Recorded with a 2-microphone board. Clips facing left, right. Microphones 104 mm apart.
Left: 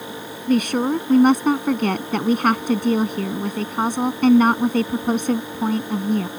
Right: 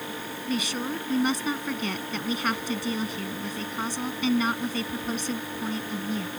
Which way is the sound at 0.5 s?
50° left (ahead or behind).